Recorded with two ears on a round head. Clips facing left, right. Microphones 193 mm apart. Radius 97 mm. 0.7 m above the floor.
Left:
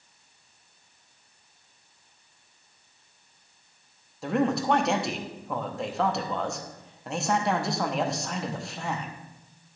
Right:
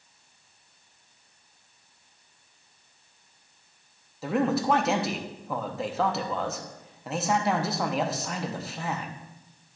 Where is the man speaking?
Centre (ahead or behind), 0.6 m.